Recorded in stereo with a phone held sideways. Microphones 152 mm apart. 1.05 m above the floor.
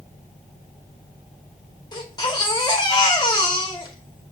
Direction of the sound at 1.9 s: 25° left (ahead or behind).